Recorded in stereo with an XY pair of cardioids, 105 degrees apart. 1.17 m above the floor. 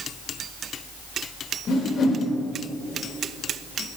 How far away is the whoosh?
About 5 m.